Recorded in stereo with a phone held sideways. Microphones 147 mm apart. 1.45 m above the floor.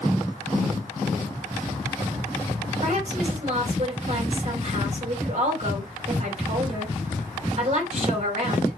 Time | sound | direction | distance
2.8 | a woman speaking | 50° right (ahead or behind) | 3.5 m